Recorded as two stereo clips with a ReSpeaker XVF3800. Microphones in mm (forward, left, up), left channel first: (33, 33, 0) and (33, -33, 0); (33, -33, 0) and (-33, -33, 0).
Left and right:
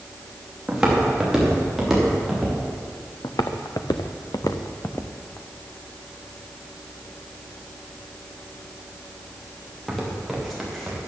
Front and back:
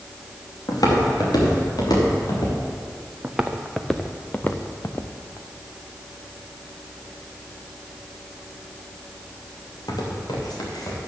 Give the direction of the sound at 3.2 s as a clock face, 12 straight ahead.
9 o'clock.